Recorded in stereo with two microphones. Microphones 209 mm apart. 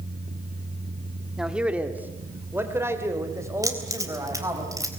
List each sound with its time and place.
1.4 s a man speaking: centre (ahead or behind), 1.7 m; by 4.6 s 15° right (ahead or behind), 5 m
3.6 s keys jangling: 15° right (ahead or behind), 3.5 m